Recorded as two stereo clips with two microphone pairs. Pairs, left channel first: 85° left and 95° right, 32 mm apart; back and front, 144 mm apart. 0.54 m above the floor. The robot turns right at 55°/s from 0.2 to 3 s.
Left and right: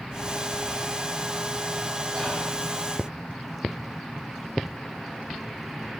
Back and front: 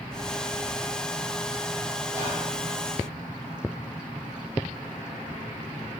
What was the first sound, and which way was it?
Whispering, 165° left.